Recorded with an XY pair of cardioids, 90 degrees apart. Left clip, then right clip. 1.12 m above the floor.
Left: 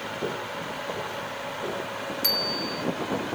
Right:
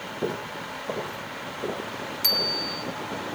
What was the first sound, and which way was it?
Footsteps, 25° right.